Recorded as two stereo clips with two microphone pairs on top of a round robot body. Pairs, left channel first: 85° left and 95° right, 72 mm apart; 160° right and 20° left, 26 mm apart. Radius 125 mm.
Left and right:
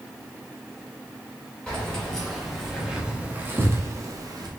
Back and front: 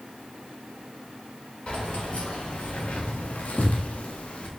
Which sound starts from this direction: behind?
Keys jangling, at 1.7 s.